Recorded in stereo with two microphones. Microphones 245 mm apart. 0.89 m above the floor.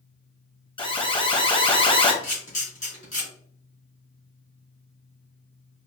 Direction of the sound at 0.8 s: 20° left (ahead or behind).